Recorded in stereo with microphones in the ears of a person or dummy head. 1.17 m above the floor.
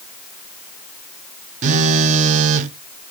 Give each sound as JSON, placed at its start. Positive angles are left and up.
{"t": 1.6, "sound": "a phone buzzing", "side_deg": -50, "distance_m": 0.6}